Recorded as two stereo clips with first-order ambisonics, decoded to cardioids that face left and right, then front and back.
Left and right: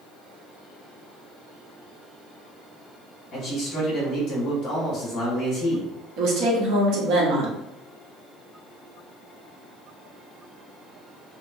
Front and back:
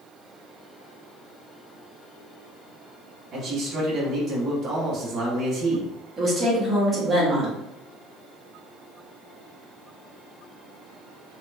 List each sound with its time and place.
3.3 s a man speaking: 130° left, 1.0 m
6.2 s a woman speaking: 105° right, 0.9 m